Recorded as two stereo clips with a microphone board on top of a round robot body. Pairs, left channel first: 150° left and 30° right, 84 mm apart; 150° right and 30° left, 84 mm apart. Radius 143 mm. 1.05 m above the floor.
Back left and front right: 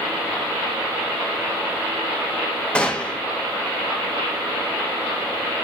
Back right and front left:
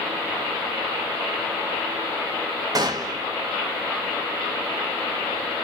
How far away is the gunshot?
About 1.9 m.